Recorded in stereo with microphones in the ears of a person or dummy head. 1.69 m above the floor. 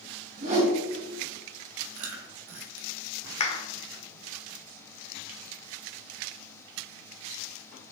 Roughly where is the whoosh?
Right.